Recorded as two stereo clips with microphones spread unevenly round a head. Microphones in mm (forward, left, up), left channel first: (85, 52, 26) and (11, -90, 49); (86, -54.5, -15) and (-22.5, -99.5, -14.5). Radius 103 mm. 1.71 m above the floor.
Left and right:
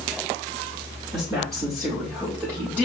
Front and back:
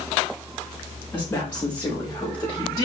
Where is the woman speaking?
50° right, 5 m; by 2.9 s 40° right, 4 m.